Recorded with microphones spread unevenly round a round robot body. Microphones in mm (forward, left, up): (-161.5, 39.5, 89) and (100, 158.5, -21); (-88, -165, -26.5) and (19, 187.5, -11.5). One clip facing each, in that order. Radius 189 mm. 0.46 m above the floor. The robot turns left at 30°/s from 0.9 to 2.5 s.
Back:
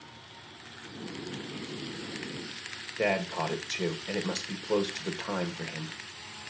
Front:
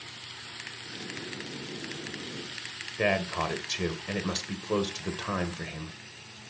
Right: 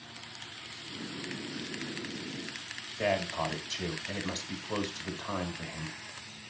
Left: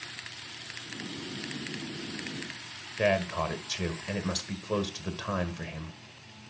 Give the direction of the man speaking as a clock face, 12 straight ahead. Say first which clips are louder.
Even, left 4 dB; 10 o'clock.